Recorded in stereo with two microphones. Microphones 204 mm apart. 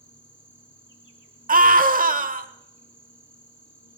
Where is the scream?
45° right (ahead or behind), 1.3 m.